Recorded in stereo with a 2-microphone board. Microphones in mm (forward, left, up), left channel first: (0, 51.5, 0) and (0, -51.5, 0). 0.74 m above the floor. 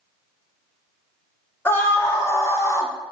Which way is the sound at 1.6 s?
20° left (ahead or behind).